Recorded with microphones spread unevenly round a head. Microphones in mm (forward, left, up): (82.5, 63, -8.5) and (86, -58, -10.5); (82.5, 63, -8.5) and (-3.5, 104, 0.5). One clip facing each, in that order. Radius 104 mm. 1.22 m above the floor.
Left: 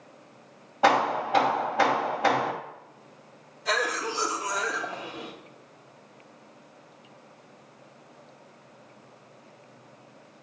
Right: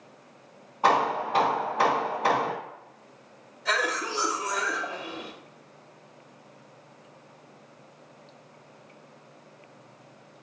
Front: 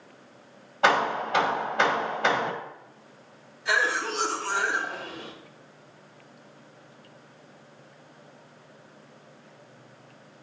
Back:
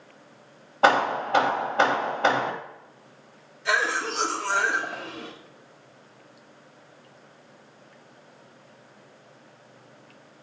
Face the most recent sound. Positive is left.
turn(degrees=170)